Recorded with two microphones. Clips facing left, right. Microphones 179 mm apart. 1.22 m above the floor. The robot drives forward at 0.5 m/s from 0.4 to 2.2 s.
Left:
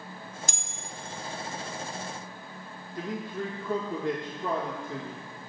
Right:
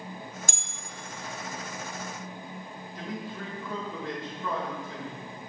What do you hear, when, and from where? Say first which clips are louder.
0.5 s a bell: even; 55° right (ahead or behind), 1.4 m
3.0 s a man speaking: left 4 dB; 55° left (ahead or behind), 1.6 m